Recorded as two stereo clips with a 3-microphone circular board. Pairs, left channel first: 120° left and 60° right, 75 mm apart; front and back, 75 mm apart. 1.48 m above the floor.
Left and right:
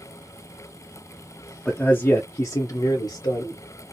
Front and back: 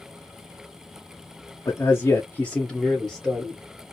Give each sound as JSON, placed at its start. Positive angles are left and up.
{"t": 1.6, "sound": "a man speaking", "azimuth_deg": 40, "distance_m": 0.7}